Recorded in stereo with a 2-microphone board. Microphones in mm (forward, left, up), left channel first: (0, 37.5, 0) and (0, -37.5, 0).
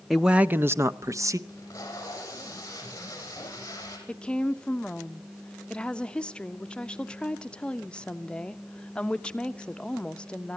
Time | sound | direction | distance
0.1 | a man speaking | centre (ahead or behind) | 0.6 m
1.5 | tape being pulled | 40° left (ahead or behind) | 6.5 m
4.1 | a woman speaking | 15° left (ahead or behind) | 0.8 m